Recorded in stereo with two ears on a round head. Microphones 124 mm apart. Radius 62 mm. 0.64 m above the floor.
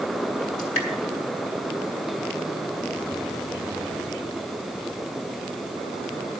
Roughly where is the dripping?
Left.